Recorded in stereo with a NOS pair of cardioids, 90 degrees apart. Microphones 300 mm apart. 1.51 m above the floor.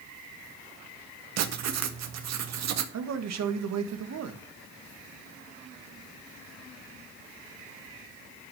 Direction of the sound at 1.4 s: 65° right.